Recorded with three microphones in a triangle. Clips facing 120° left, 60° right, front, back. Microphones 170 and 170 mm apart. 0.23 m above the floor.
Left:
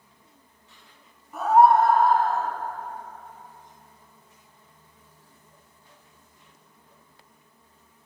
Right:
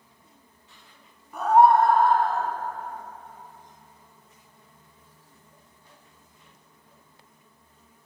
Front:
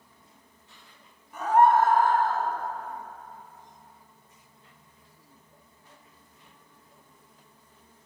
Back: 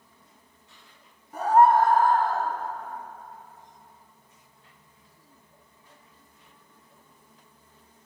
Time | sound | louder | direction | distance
1.3 | a scream | even, back 2 dB | 150° right | 1.3 m